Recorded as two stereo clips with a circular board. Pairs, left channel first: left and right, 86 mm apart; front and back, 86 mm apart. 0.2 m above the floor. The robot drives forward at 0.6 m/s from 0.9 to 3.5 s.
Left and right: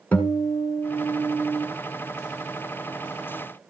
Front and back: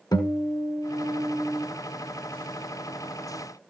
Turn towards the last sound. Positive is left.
turn(degrees=120)